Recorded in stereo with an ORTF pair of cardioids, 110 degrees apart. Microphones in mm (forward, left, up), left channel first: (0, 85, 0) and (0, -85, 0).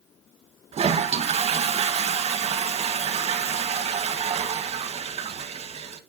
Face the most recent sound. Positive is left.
turn(degrees=-35)